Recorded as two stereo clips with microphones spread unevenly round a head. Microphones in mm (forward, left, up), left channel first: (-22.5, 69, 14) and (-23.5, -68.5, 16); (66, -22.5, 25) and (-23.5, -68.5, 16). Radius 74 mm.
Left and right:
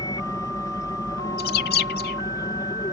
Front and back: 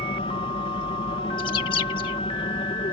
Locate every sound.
0.0 s an aircraft: 30° left
1.4 s a bird: 85° left